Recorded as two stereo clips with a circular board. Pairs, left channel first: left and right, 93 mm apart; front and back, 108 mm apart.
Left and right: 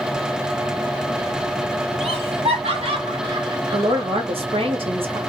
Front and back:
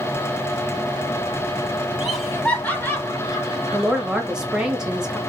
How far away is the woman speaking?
About 1.4 m.